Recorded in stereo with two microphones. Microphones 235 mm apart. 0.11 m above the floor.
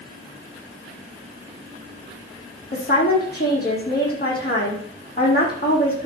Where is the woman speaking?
40° left (ahead or behind), 4.5 m.